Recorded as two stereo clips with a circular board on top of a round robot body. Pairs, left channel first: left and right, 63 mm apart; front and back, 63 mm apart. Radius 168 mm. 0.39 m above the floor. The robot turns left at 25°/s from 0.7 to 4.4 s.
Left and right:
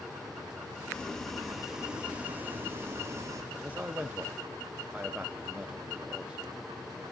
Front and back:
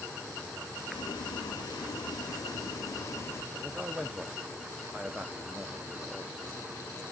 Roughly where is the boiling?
Ahead.